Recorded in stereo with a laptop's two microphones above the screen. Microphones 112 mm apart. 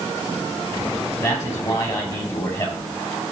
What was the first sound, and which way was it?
A man speaking, 30° left (ahead or behind).